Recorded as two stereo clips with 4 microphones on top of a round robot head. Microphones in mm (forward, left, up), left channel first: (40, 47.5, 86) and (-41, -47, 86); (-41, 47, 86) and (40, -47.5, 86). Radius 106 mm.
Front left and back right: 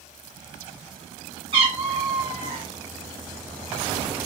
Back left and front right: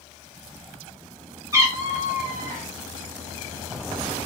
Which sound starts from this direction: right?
A cat meowing, at 1.5 s.